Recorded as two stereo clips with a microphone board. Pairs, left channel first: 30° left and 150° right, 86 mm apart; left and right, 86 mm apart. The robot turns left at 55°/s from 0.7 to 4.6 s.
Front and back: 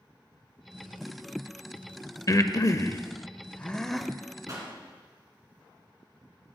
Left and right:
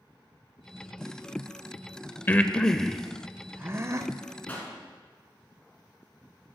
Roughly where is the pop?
Behind.